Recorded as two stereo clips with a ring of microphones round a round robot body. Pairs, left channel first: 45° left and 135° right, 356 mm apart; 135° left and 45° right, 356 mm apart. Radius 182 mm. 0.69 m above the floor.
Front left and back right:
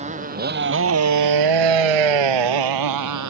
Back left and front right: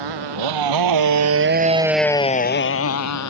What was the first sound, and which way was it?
A motorcycle, 65° right.